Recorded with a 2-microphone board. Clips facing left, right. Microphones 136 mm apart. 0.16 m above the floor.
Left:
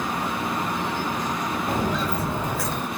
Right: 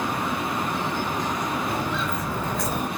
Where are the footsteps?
50° left (ahead or behind), 1.7 m; by 2.9 s 20° right (ahead or behind), 1.2 m.